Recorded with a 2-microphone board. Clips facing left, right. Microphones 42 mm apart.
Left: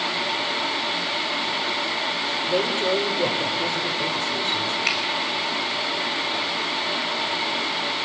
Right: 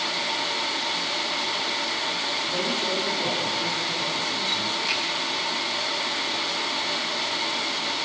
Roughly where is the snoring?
I don't hear snoring.